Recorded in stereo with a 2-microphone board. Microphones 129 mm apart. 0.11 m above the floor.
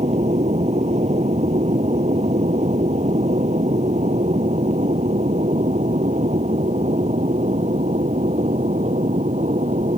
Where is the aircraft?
60° right (ahead or behind); by 10.0 s 65° right (ahead or behind).